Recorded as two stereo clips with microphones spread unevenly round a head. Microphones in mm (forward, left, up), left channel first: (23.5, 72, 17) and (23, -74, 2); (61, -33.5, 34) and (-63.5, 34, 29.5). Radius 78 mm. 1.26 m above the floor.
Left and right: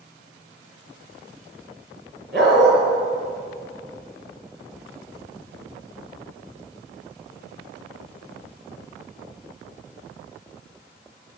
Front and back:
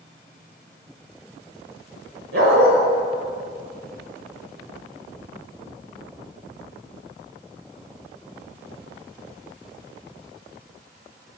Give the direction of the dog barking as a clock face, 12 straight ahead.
6 o'clock.